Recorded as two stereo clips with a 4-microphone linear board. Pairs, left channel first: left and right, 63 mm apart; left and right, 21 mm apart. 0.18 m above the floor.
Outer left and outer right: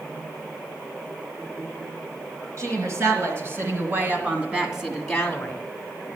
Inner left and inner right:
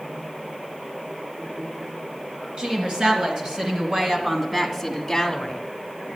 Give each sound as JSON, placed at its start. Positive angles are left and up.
{"t": 2.6, "sound": "a woman speaking", "side_deg": -50, "distance_m": 3.0}